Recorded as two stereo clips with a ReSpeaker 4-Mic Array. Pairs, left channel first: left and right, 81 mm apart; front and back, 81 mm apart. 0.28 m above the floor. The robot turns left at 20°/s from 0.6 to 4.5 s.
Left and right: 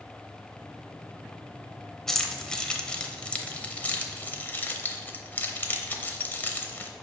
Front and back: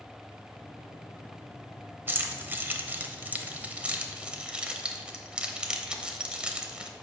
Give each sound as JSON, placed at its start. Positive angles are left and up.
{"t": 2.1, "sound": "keys jangling", "azimuth_deg": 165, "distance_m": 0.6}